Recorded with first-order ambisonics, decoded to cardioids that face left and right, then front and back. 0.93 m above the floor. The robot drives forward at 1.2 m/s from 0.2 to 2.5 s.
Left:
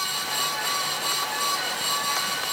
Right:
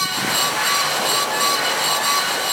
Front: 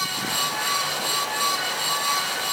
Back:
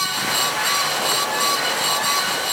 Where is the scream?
I don't hear a scream.